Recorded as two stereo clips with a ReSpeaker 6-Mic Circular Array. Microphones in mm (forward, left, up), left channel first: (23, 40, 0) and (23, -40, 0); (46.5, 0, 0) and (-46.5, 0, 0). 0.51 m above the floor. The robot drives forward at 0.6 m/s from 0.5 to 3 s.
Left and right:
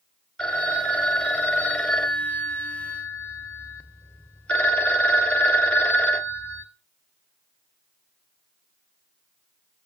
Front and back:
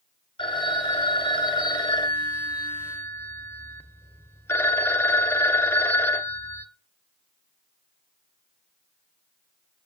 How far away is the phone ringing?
About 2.0 m.